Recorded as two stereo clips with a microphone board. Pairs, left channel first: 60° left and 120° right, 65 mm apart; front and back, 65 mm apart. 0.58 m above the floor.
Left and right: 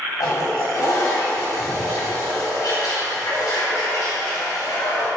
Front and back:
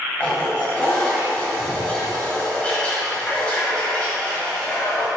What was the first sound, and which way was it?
A toilet flushing, 70° left.